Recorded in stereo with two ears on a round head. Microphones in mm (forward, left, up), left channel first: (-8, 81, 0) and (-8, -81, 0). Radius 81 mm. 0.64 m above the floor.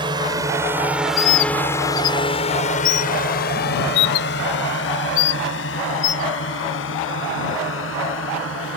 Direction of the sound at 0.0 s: 25° right (ahead or behind).